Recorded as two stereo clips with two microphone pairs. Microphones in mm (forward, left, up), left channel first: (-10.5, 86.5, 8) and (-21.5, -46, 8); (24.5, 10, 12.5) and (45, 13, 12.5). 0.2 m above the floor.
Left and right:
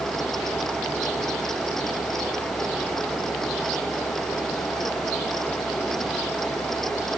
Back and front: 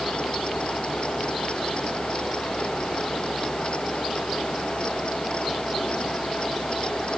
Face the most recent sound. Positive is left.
No sound to turn to.